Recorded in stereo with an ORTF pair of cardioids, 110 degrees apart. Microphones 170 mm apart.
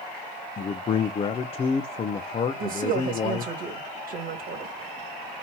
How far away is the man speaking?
About 0.6 m.